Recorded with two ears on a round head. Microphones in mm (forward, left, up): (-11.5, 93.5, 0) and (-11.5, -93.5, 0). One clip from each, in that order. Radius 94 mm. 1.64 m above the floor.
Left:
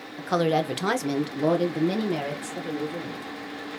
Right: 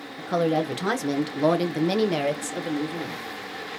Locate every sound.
0.2 s a woman speaking: 25° left (ahead or behind), 0.9 m; by 3.2 s 55° right (ahead or behind), 1.3 m